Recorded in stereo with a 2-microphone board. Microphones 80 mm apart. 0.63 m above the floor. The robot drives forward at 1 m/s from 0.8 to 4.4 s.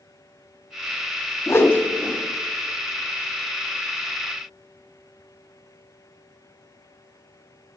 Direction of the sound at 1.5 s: 35° left (ahead or behind).